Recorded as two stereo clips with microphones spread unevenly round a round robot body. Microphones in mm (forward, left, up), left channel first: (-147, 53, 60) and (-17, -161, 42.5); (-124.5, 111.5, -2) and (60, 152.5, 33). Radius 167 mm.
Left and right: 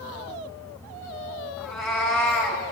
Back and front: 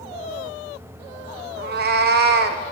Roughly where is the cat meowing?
Ahead left.